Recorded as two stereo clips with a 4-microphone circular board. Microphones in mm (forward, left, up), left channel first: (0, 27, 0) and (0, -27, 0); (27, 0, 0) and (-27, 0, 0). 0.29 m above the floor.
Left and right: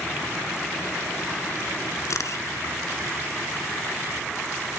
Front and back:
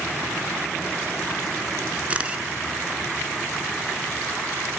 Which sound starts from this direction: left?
A camera shutter, at 2.1 s.